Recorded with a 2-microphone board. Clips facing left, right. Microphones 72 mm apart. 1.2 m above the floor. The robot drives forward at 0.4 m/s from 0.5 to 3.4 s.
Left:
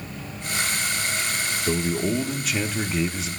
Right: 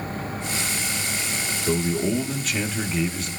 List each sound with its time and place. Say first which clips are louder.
1.7 s a man speaking: right 2 dB; centre (ahead or behind), 1.6 m; by 3.3 s 5° left (ahead or behind), 1.0 m